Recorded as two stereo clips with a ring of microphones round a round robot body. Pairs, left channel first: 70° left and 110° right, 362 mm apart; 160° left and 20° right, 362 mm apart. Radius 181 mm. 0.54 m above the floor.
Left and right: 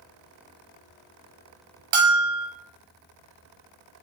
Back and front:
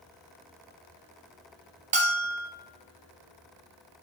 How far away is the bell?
About 0.8 m.